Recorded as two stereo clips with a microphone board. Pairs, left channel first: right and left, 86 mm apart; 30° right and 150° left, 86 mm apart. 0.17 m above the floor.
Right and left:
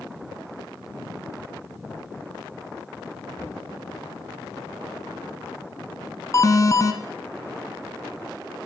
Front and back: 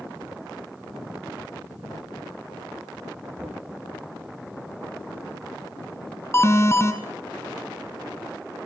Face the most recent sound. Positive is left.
turn(degrees=-70)